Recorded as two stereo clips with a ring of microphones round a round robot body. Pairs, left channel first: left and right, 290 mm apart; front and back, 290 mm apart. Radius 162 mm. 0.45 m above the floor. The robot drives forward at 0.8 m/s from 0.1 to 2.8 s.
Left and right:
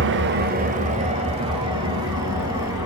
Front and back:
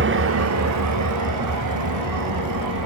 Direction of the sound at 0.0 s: 135° right.